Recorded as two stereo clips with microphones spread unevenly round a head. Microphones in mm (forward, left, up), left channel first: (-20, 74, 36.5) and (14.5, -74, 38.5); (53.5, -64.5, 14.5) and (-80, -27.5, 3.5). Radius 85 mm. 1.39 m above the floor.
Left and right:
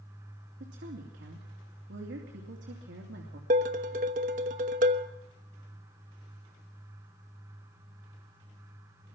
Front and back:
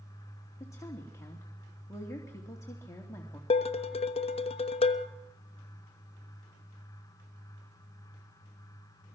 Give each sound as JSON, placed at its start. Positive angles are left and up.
{"t": 0.6, "sound": "a woman speaking", "azimuth_deg": -85, "distance_m": 2.5}
{"t": 3.5, "sound": "dishes clattering", "azimuth_deg": -45, "distance_m": 1.0}